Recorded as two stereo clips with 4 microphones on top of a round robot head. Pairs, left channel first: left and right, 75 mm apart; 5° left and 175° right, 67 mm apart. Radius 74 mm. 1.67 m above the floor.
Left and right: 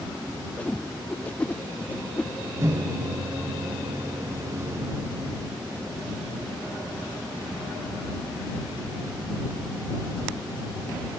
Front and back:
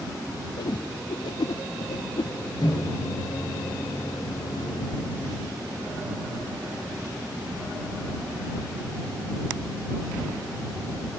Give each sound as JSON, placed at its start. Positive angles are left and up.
{"t": 0.6, "sound": "a whoosh", "azimuth_deg": 15}
{"t": 2.6, "sound": "a microwave", "azimuth_deg": -40}